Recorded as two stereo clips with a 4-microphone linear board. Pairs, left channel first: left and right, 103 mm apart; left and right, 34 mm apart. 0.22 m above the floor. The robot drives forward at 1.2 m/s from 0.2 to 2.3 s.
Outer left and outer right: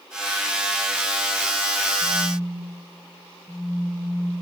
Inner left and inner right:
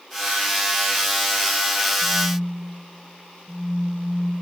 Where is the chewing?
No chewing in this recording.